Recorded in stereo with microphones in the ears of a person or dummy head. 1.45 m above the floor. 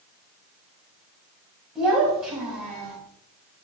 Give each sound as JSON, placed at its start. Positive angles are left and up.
{"t": 1.8, "sound": "a child speaking", "side_deg": -5, "distance_m": 5.0}